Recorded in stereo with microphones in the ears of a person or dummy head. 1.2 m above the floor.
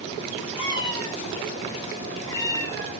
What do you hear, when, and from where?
0.6 s a cat meowing: 30° left (ahead or behind), 3.5 m; by 2.9 s 15° left (ahead or behind), 2.5 m